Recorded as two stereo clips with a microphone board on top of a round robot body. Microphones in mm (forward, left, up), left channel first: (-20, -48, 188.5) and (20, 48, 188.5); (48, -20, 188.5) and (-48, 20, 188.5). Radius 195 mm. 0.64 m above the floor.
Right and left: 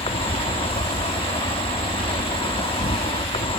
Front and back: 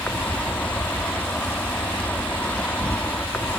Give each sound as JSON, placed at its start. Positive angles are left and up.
{"t": 0.0, "sound": "an insect", "azimuth_deg": -100}